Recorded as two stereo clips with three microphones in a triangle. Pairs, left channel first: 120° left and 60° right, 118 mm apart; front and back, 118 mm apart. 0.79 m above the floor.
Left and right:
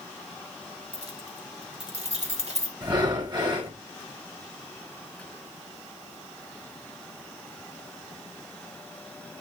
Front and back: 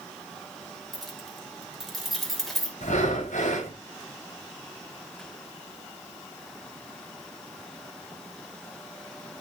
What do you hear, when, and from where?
0.9 s keys jangling: 90° right, 2.5 m
2.8 s breathing: 5° right, 4 m